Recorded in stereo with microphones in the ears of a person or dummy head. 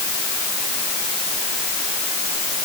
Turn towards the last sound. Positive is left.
No sound to turn to.